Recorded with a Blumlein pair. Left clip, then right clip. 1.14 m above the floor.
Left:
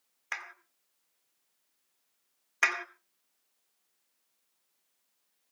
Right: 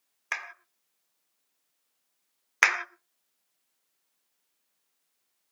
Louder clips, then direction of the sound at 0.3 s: Right 4 dB; 30° right.